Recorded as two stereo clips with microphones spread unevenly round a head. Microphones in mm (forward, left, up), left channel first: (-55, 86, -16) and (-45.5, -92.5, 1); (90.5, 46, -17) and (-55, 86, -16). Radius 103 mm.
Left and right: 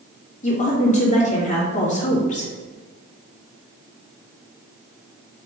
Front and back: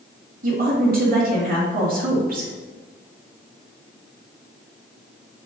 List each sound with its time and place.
0.4 s a woman speaking: 140° left, 2.5 m